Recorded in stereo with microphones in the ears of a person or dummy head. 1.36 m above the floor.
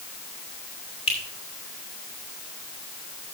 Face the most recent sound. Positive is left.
turn(degrees=30)  # may be behind; listen again after turning